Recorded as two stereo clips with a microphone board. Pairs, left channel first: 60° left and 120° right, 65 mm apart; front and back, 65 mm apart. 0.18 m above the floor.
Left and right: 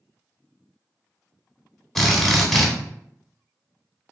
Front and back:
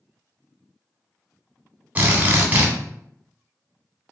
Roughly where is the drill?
Behind left.